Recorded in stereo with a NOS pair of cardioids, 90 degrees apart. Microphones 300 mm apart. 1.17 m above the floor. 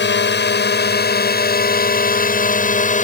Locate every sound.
0.0 s a drone: 35° left; by 3.0 s 25° left